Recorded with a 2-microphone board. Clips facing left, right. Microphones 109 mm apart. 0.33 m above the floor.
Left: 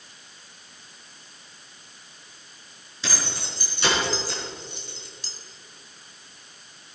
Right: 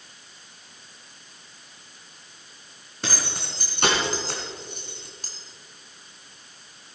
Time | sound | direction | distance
3.0 | keys jangling | 60° right (ahead or behind) | 4 m